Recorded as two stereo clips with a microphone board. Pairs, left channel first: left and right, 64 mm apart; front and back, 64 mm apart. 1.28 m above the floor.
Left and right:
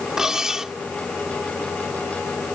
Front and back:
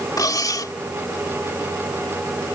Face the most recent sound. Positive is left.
turn(degrees=-10)